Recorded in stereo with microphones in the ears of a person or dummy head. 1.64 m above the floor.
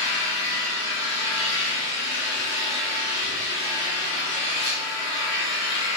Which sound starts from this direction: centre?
An engine running, at 0.0 s.